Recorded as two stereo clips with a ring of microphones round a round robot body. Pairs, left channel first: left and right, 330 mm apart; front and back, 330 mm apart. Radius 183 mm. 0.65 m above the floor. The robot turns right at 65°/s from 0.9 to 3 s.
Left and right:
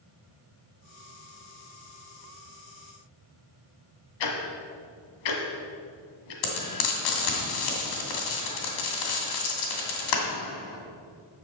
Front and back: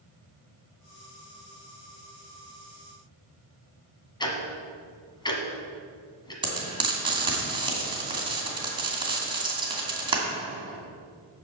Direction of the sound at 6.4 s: 105° left.